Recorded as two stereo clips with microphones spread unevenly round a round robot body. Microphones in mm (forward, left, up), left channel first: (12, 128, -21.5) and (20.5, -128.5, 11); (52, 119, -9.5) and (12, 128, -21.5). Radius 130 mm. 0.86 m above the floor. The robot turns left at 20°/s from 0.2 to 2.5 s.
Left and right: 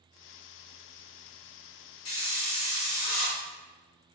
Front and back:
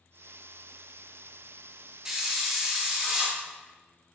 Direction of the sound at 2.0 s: 105° left.